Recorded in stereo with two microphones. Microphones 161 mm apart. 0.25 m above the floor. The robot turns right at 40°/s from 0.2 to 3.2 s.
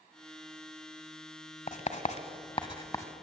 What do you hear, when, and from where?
1.7 s writing: 50° left (ahead or behind), 1.1 m; by 3.1 s 20° left (ahead or behind), 1.1 m